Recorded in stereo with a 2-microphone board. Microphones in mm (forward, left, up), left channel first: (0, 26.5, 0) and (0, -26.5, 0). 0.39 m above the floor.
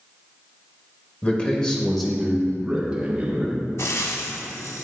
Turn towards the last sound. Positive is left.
turn(degrees=65)  # may be behind; listen again after turning